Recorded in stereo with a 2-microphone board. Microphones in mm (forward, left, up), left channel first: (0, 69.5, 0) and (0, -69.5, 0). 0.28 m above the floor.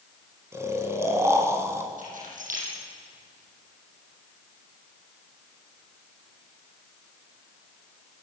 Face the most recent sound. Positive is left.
turn(degrees=-75)  # may be behind; listen again after turning